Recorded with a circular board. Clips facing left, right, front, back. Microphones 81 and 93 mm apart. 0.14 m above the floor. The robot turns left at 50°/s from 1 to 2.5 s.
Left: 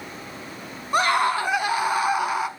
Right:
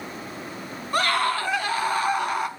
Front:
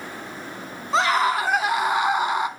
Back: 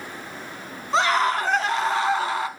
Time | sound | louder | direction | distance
0.9 | a scream | left 3 dB, even | 85° left | 1.1 m